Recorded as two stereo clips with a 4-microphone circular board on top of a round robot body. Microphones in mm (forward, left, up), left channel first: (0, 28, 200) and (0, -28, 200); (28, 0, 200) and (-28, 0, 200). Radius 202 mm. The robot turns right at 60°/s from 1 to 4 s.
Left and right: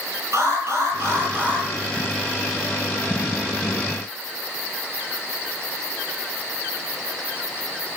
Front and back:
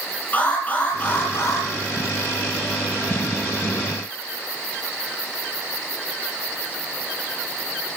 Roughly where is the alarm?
Ahead right.